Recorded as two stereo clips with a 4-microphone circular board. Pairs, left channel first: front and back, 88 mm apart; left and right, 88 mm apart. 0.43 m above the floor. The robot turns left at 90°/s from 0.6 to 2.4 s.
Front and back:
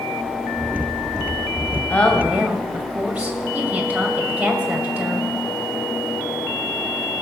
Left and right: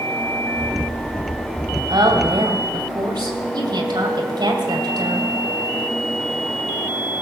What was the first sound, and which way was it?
A woman speaking, 65° right.